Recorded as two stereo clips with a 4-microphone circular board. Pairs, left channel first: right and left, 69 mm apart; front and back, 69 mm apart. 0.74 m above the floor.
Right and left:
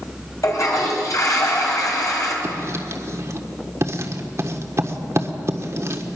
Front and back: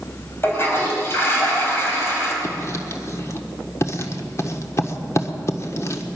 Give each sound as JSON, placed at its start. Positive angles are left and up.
{"t": 0.4, "sound": "a toilet flushing", "azimuth_deg": -55, "distance_m": 4.0}
{"t": 2.4, "sound": "writing", "azimuth_deg": 45, "distance_m": 1.4}